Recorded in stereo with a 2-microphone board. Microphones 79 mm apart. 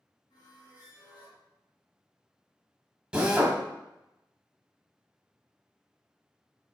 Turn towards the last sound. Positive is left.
turn(degrees=-10)  # may be behind; listen again after turning